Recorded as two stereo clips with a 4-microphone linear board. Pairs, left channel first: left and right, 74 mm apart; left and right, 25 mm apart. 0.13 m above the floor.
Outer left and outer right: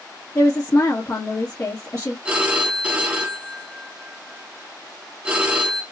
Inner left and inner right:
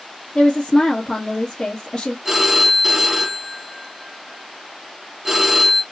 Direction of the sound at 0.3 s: 40° left (ahead or behind).